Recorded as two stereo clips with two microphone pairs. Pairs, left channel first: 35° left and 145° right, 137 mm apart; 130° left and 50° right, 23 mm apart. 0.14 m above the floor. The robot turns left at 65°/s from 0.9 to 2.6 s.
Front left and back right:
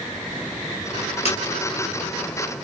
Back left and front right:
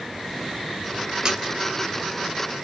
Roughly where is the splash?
Ahead.